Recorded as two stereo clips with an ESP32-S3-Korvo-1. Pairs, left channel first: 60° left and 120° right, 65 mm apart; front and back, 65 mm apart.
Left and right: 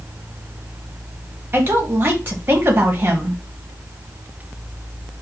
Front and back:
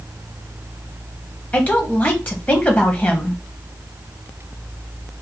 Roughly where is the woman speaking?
Ahead right.